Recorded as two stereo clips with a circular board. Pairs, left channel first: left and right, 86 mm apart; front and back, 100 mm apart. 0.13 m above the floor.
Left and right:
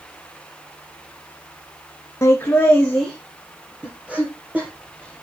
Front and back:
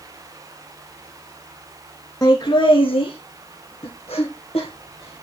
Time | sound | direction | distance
2.2 | laughter | 40° left | 1.6 m